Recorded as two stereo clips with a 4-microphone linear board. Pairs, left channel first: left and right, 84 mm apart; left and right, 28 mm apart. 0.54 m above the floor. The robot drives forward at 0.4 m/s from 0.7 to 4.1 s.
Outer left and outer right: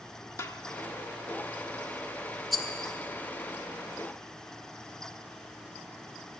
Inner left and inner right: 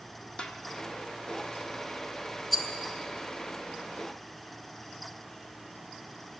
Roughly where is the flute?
I don't hear a flute.